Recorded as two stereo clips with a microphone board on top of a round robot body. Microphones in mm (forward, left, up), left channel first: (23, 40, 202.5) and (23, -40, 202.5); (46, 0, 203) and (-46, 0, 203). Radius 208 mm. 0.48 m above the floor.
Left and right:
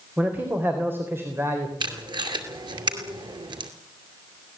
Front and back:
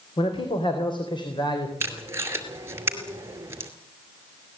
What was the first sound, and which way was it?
A man speaking, 20° right.